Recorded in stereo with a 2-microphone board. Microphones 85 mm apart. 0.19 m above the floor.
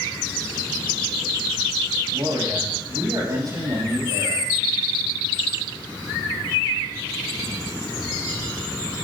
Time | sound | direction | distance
2.1 | a man speaking | 45° right (ahead or behind) | 7 m